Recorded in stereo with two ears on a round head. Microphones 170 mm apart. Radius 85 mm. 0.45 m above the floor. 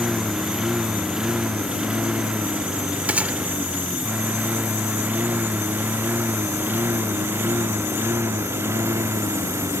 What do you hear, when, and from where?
0.0 s a lawn mower: 5° right (ahead or behind); by 9.8 s 15° right (ahead or behind)
3.1 s a gunshot: 10° right (ahead or behind)